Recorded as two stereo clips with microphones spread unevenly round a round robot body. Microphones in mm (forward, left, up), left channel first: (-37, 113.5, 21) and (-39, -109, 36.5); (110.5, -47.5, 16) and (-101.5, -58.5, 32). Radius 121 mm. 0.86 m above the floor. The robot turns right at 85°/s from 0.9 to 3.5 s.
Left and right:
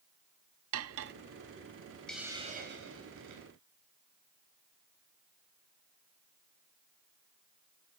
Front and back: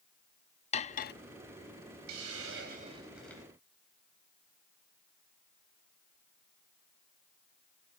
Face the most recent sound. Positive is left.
turn(degrees=-65)